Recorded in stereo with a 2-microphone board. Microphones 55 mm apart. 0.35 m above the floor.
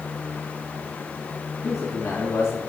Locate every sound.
1.6 s a man speaking: 70° left (ahead or behind), 3 m